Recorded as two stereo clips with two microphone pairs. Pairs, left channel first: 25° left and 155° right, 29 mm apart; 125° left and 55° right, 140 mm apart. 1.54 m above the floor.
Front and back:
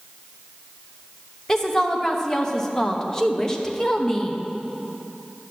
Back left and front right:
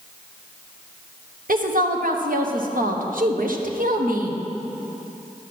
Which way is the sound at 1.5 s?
50° right.